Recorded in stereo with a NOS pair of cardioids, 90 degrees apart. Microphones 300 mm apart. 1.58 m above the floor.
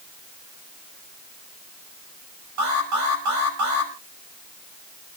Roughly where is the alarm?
Right.